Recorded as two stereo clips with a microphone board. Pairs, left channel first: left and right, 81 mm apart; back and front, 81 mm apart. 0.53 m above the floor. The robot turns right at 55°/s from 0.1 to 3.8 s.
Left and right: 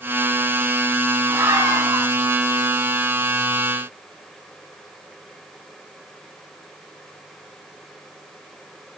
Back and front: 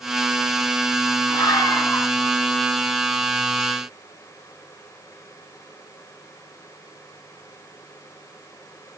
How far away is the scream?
About 7 m.